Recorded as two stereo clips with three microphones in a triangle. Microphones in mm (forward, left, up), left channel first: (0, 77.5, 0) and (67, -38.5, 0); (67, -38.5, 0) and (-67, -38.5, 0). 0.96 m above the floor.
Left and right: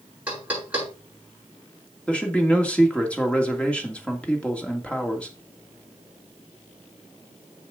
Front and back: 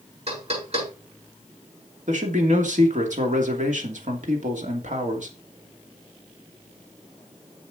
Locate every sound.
0.3 s knocking: 140° right, 6.5 m
2.1 s a man speaking: 160° right, 2.5 m